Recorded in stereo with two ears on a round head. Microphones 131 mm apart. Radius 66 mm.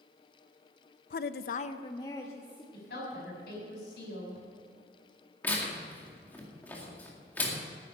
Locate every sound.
1.1 s a woman speaking: 55° left (ahead or behind), 0.6 m; by 2.6 s 15° left (ahead or behind), 1.8 m
2.7 s a woman speaking: 80° left, 6 m
5.4 s tearing paper: 10° left (ahead or behind), 2 m